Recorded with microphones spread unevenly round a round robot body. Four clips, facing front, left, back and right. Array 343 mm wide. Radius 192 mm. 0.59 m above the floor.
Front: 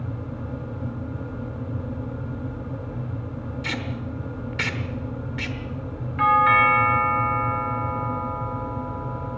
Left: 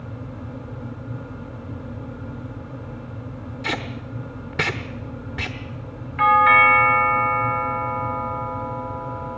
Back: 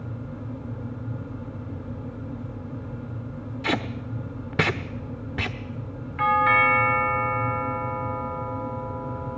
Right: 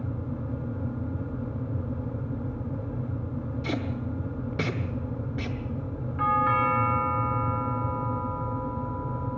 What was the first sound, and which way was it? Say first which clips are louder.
Tape being pulled: left 3 dB, back 6 dB; 140° left.